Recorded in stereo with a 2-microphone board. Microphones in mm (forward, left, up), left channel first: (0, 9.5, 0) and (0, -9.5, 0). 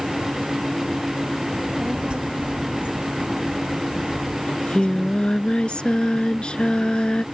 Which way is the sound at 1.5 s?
65° right (ahead or behind).